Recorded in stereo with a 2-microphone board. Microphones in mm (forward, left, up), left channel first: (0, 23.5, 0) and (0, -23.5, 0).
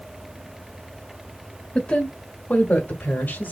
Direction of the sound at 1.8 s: 25° left (ahead or behind).